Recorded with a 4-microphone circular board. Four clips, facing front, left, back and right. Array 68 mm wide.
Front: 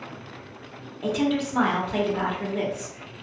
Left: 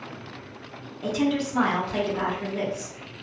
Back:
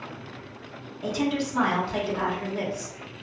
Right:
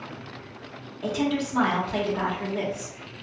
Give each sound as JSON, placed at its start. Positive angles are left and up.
{"t": 1.0, "sound": "a woman speaking", "azimuth_deg": -20, "distance_m": 0.8}